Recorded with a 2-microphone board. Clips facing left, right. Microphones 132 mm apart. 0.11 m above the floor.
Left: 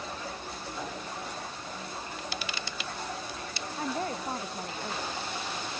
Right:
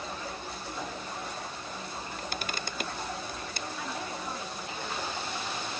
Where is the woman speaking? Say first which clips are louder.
Left 7 dB; 45° left (ahead or behind).